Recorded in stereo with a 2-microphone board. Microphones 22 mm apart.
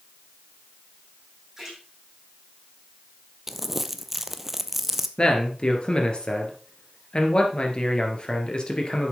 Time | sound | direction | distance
1.6 | a splash | 10° right (ahead or behind) | 6.5 m
3.5 | crumpling | 10° right (ahead or behind) | 0.6 m
5.2 | a man speaking | 40° left (ahead or behind) | 2.5 m